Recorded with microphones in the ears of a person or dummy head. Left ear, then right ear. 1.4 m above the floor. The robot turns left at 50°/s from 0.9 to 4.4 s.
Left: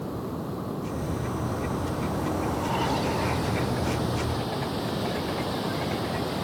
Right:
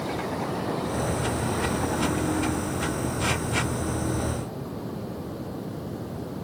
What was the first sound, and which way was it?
Running water, 135° right.